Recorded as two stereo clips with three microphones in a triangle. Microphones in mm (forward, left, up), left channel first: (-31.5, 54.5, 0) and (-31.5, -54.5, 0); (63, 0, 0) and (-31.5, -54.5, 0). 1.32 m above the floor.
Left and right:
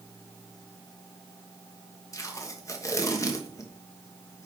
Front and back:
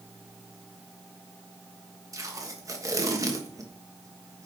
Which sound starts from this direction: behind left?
Tape being pulled, at 2.1 s.